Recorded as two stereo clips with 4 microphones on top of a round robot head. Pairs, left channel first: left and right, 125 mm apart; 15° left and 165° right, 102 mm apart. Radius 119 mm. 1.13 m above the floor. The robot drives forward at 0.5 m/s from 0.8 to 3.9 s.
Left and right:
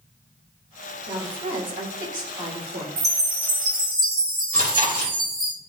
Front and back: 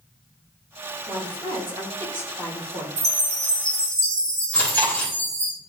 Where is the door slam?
No door slam in this recording.